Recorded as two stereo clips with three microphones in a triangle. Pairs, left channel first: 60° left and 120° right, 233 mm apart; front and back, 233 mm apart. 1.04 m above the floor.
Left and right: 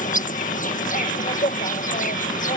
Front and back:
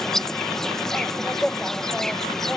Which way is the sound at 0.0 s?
85° left.